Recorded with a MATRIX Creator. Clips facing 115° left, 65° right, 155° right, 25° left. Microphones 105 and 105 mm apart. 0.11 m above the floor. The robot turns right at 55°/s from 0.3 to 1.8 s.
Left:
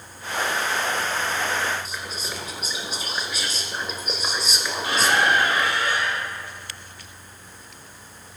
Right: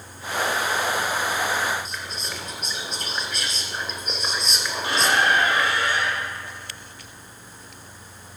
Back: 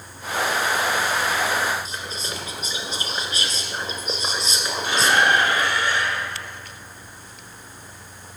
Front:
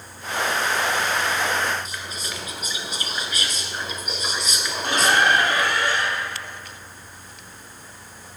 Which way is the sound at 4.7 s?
10° right.